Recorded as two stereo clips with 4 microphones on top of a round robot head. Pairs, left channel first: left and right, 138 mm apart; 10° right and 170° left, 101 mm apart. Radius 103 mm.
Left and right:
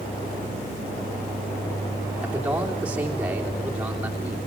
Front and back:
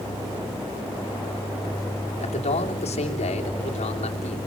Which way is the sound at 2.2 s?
10° right.